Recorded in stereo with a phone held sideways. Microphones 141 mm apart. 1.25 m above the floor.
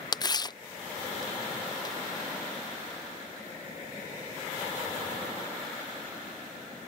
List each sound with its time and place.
0.1 s tearing paper: 30° left (ahead or behind)